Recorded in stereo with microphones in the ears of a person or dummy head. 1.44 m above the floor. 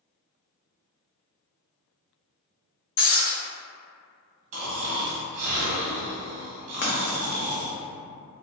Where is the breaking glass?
65° left (ahead or behind), 1.3 m.